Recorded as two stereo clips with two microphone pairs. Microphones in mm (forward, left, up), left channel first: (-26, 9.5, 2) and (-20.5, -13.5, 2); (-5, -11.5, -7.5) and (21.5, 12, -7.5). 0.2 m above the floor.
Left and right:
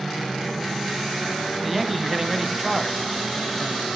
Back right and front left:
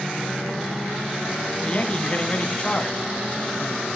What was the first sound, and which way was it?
A man speaking, 160° right.